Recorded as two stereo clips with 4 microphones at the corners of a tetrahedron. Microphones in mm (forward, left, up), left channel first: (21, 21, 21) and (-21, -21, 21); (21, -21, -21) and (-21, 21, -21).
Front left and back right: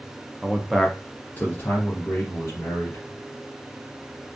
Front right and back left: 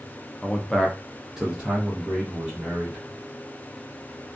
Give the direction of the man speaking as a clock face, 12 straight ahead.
3 o'clock.